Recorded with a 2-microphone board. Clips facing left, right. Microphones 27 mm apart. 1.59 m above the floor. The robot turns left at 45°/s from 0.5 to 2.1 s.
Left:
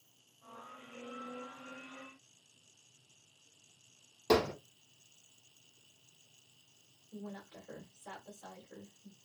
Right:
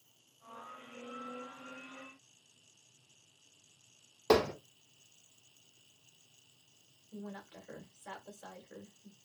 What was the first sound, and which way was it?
Hammering, 35° right (ahead or behind).